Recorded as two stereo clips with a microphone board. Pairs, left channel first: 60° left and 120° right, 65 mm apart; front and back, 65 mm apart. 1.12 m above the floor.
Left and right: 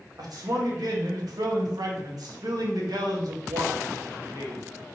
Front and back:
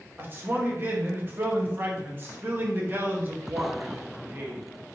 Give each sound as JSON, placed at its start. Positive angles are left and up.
{"t": 0.2, "sound": "a man speaking", "azimuth_deg": -125, "distance_m": 1.8}